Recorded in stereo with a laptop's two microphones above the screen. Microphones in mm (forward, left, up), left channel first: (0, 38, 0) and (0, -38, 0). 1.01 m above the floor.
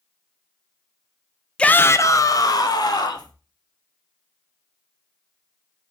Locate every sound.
1.6 s a shout: 15° left (ahead or behind), 0.6 m; by 3.3 s 65° left (ahead or behind), 2 m